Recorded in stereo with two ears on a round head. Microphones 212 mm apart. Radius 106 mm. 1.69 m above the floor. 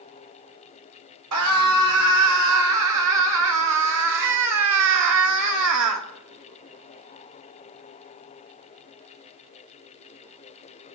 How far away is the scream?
About 7 m.